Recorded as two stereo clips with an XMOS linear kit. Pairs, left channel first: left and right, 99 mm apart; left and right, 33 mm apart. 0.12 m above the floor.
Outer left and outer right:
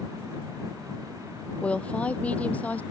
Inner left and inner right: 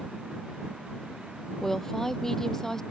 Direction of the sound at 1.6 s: 10° left (ahead or behind).